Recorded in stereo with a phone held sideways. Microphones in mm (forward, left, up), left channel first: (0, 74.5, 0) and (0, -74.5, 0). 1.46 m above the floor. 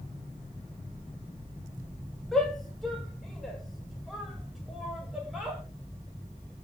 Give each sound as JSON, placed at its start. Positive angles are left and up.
{"t": 2.3, "sound": "a shout", "side_deg": 5, "distance_m": 6.5}